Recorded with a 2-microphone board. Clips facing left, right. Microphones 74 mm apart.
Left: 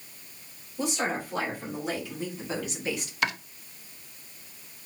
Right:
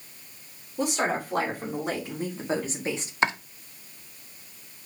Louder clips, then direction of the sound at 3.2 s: Right 4 dB; 30° right (ahead or behind).